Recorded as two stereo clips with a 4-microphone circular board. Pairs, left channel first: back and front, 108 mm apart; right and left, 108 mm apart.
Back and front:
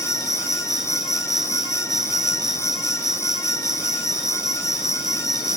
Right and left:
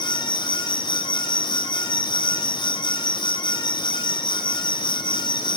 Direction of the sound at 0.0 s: 85° right.